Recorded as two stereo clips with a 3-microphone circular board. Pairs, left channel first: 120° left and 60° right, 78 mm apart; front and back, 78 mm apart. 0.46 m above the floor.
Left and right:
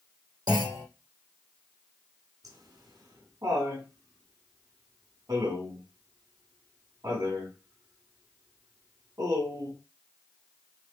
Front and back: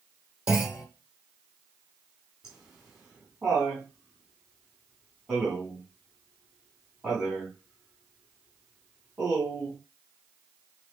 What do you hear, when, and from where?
0.5 s a clunk: 100° right, 4.5 m
2.4 s laughter: 100° right, 3 m